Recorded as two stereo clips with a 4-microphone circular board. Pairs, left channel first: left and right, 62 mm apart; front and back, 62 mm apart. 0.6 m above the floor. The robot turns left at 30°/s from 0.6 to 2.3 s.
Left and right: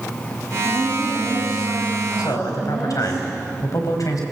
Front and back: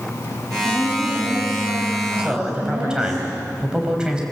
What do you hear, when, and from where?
0.6 s a woman speaking: 140° right, 5.5 m; by 3.2 s 170° left, 5.5 m
2.2 s a man speaking: 105° left, 3.5 m